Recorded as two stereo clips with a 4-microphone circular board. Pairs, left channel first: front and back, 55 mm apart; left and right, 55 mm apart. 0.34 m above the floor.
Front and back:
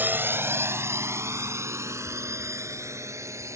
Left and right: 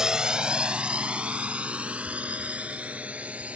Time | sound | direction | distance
0.0 | a drone | 160° right | ?